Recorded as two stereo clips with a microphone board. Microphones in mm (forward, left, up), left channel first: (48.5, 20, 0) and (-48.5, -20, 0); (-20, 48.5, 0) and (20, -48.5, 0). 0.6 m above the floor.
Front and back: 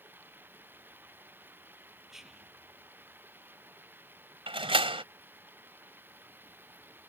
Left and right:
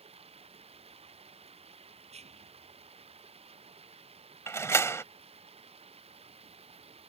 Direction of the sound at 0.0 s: 85° right.